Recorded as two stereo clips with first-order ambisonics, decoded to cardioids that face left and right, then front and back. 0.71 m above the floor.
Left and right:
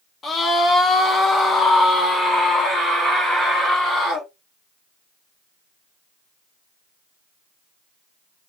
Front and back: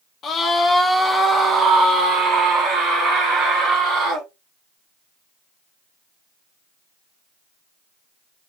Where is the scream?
35° left, 0.8 m; by 4.3 s straight behind, 1.9 m.